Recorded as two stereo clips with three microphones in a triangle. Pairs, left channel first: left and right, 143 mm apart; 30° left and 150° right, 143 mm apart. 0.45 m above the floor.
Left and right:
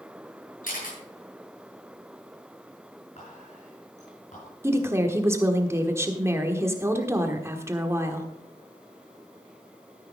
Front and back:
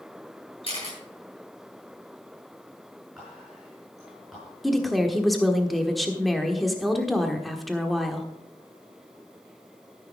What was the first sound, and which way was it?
A camera shutter, 80° left.